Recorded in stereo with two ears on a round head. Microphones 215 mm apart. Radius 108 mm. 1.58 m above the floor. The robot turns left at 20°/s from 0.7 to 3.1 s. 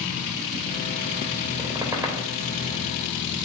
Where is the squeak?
20° right (ahead or behind), 3 m; by 2.3 s 5° right (ahead or behind), 3 m.